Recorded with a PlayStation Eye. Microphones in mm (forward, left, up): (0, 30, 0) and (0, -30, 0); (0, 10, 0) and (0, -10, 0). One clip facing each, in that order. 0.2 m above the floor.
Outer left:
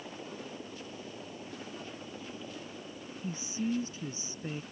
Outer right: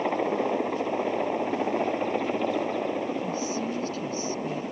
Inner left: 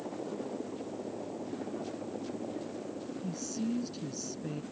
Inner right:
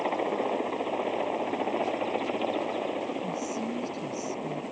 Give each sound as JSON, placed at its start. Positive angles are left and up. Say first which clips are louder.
{"t": 0.0, "sound": "a helicopter", "louder": "outer right 18 dB, inner right 10 dB", "side_deg": -75}
{"t": 3.2, "sound": "a woman speaking", "louder": "outer right 6 dB, inner right 4 dB", "side_deg": 20}